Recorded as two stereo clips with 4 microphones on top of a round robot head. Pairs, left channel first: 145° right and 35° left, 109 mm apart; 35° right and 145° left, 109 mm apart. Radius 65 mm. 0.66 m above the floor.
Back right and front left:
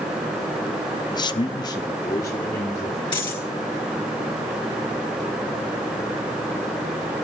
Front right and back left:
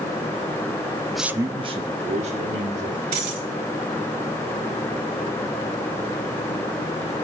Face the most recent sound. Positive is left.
turn(degrees=170)